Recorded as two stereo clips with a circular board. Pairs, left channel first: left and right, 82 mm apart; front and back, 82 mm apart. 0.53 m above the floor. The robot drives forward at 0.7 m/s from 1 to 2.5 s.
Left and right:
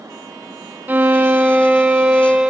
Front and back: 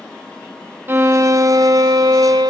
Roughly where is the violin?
Behind right.